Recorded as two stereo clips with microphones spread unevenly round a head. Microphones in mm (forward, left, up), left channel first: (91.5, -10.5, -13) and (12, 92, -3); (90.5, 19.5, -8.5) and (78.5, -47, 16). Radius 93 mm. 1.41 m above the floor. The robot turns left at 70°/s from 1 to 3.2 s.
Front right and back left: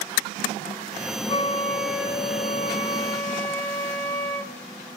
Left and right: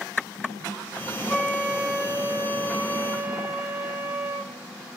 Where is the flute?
5° right, 1.7 m; by 4.5 s 135° right, 1.7 m.